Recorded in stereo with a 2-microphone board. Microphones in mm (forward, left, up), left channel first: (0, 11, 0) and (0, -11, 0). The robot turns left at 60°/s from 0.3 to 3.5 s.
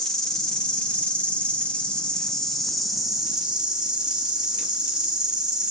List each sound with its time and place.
0.0 s an insect: 150° left, 0.9 m; by 5.7 s 40° right, 0.9 m